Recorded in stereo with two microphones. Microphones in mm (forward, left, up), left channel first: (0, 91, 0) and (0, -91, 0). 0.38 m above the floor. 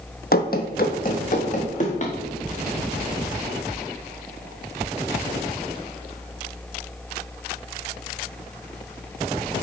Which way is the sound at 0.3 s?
60° left (ahead or behind).